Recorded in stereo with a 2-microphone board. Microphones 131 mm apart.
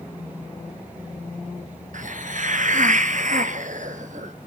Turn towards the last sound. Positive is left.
turn(degrees=-65)  # may be behind; listen again after turning